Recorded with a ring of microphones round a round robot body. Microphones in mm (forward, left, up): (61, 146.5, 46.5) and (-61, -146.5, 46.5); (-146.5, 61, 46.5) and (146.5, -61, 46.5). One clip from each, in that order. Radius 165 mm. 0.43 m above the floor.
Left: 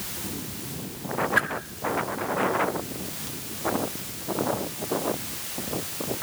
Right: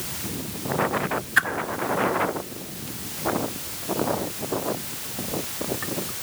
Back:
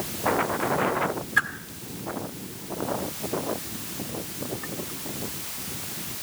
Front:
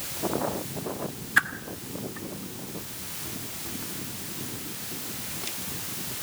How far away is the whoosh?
About 1.5 m.